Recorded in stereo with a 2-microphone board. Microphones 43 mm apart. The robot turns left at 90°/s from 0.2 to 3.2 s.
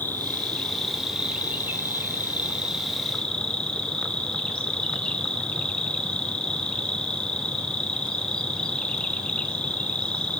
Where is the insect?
65° left, 0.9 m; by 10.4 s 155° left, 0.9 m.